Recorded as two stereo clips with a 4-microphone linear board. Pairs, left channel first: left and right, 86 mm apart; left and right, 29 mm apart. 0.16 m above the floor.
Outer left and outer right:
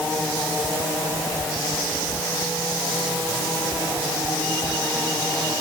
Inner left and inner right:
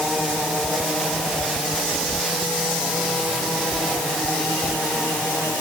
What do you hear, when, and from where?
Only background noise.